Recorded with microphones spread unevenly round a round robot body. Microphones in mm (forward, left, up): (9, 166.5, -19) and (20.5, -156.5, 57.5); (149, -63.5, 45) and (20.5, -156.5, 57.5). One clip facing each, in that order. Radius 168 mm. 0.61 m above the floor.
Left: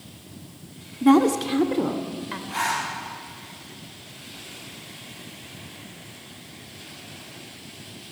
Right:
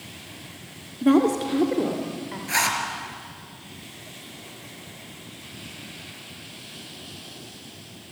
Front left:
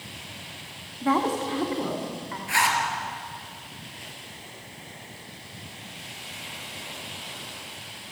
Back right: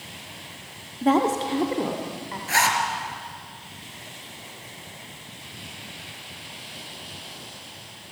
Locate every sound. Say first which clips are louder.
1.0 s a woman speaking: left 1 dB, back right 4 dB; 155° left, 1.6 m; by 2.4 s 140° left, 3 m
2.5 s a zipper: even, back right 2 dB; 100° right, 4.5 m